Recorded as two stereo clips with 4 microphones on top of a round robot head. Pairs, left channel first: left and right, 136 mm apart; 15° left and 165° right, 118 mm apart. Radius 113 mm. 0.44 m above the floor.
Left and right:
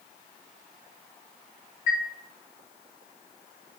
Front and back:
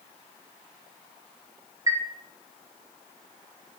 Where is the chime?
130° left, 0.6 m.